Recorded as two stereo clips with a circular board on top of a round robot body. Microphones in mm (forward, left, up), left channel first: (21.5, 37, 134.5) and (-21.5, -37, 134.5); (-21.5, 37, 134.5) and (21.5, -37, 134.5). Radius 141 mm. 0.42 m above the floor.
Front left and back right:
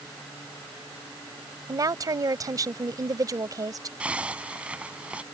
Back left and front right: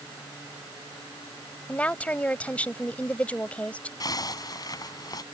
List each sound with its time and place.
1.7 s a woman speaking: 165° right
4.0 s a zipper: 165° left